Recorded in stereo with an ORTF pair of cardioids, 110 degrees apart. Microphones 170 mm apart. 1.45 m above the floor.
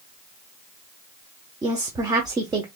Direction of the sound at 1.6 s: 25° right.